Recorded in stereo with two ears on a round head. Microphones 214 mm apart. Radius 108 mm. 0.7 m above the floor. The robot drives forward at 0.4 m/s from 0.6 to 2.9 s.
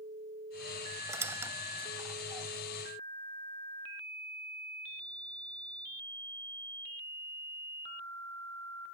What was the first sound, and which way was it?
A squeak, 10° right (ahead or behind).